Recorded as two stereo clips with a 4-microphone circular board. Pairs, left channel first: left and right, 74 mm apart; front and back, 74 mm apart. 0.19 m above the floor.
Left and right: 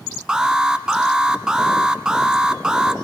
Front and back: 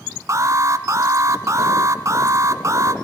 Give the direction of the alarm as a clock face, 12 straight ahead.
6 o'clock.